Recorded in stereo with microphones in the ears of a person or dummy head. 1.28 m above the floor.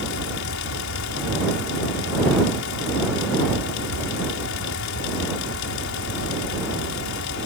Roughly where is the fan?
Left.